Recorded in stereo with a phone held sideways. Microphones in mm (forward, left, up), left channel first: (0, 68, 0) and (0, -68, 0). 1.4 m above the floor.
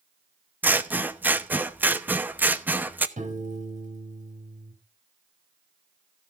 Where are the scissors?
15° right (ahead or behind), 0.9 m.